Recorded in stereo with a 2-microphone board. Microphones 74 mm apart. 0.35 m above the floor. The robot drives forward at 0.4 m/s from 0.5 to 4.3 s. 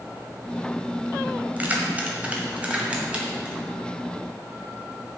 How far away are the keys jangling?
About 1.4 m.